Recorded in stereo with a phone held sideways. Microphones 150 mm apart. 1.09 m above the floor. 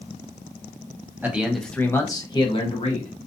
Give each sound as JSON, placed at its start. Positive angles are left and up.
{"t": 1.2, "sound": "a man speaking", "side_deg": -15, "distance_m": 0.8}